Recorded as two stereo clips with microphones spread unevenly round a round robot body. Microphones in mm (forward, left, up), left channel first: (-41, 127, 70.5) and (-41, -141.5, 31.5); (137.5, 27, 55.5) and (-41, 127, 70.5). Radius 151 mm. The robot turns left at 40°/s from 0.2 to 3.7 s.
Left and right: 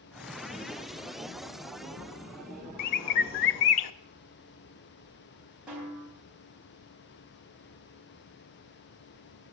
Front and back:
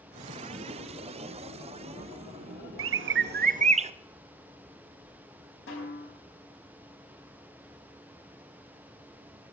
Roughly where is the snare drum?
Ahead.